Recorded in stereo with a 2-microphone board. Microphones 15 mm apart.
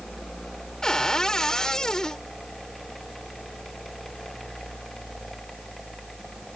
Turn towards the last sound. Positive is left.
turn(degrees=40)  # may be behind; listen again after turning